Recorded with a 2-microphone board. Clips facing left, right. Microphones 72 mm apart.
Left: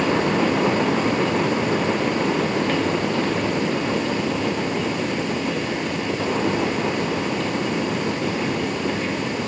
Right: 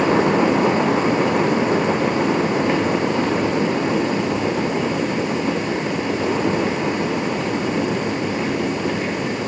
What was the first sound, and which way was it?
Only background noise.